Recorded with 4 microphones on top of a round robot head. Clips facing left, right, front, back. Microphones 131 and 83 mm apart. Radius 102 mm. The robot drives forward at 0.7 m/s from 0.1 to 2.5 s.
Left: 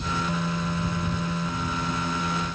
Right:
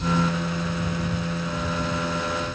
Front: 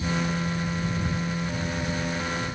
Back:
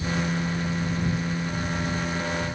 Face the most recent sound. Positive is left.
No sound to turn to.